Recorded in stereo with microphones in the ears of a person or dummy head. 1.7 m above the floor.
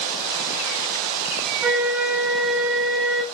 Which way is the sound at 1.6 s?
10° right (ahead or behind).